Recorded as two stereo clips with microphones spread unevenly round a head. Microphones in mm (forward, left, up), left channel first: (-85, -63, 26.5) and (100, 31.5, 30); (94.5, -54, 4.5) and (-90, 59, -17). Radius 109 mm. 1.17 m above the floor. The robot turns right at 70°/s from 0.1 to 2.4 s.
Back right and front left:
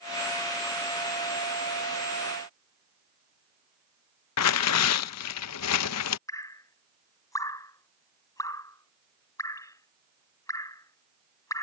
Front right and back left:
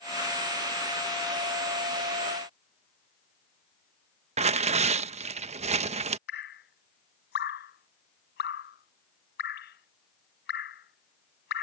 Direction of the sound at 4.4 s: 150° right.